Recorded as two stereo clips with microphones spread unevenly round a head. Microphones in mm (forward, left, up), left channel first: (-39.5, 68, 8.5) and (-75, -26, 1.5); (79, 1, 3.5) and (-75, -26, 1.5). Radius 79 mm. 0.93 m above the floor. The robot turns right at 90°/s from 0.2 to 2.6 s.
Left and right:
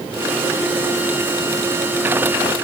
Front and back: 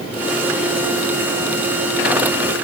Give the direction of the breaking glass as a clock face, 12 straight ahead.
I don't hear breaking glass.